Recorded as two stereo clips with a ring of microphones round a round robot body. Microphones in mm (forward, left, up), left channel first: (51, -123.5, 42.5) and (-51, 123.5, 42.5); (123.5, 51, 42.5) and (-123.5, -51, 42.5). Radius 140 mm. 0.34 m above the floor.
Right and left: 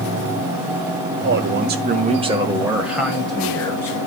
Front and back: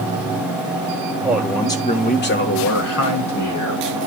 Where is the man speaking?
125° left, 1.4 m; by 4.0 s 15° left, 3 m.